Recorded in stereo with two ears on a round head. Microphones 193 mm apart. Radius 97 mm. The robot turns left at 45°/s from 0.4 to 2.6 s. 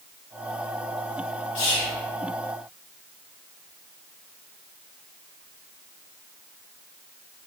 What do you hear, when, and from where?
1.6 s whispering: 65° left (ahead or behind), 0.9 m; by 2.0 s 55° left (ahead or behind), 0.9 m